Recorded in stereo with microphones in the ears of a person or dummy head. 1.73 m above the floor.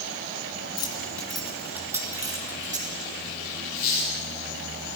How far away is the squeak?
About 7.5 m.